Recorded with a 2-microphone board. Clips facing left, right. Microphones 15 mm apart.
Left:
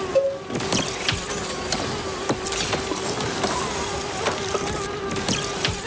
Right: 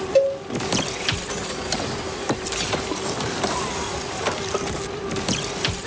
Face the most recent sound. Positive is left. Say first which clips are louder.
# right 3 dB
turn(degrees=-35)  # may be behind; listen again after turning